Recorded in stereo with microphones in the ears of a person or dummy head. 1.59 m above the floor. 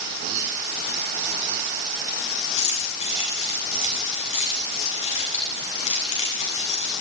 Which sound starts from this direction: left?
Keys jangling, at 2.6 s.